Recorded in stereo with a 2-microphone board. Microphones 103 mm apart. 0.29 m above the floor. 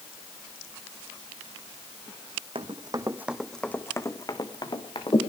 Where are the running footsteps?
55° right (ahead or behind), 1.0 m; by 5.2 s 50° left (ahead or behind), 2 m.